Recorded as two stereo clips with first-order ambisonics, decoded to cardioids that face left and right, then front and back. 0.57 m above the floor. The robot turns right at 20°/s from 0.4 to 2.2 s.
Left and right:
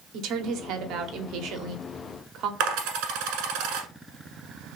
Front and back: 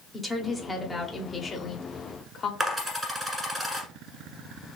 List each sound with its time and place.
0.1 s a woman speaking: 95° right, 0.9 m; by 2.5 s 60° right, 0.9 m
2.6 s a dropped coin: 105° right, 1.4 m